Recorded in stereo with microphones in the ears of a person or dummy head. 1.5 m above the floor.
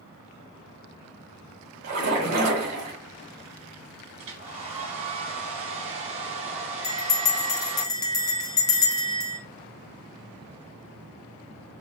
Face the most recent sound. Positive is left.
turn(degrees=20)  # may be behind; listen again after turning